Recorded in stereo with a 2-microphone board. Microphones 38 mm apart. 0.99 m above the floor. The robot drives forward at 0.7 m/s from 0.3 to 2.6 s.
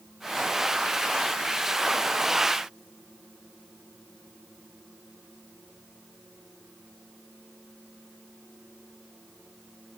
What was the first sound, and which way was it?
Only background noise.